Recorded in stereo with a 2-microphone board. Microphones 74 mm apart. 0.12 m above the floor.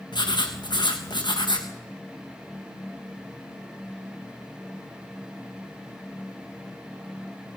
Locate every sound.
0.1 s writing: 85° left, 3 m